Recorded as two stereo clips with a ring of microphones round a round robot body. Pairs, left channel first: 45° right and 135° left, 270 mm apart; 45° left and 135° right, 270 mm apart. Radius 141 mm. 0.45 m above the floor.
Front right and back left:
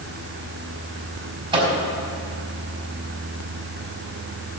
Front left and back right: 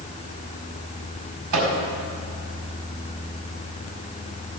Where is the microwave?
150° right, 3.5 m.